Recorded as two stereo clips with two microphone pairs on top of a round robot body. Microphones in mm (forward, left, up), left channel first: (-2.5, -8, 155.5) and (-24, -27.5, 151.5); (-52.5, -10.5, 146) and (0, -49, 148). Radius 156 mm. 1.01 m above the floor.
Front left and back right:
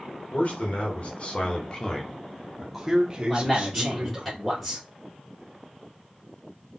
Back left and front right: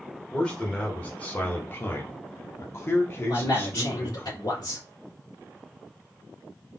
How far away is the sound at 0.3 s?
About 1.7 m.